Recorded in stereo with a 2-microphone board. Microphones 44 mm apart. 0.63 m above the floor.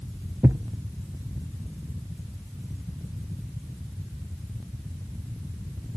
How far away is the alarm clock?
I don't hear an alarm clock.